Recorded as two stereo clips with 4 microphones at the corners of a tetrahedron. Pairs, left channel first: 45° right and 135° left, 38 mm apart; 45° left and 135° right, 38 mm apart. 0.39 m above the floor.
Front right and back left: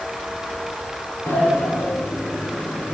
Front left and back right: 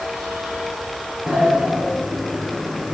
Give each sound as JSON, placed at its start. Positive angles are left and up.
{"t": 1.3, "sound": "a sliding door", "azimuth_deg": -70, "distance_m": 5.0}